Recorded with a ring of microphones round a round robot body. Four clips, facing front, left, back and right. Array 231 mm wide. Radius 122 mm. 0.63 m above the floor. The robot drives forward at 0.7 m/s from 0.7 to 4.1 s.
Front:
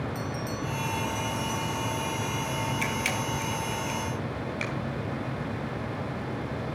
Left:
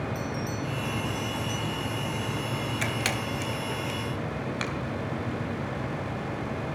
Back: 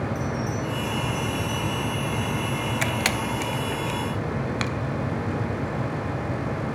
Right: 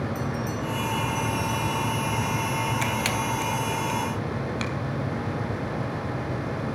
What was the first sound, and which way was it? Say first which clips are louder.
A bell: right 3 dB, back 5 dB; 45° right.